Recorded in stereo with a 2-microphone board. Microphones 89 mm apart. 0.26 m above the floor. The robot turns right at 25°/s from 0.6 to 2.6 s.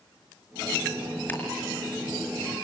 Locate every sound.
1.3 s ticking: 20° left (ahead or behind), 5 m; by 1.4 s 15° left (ahead or behind), 5 m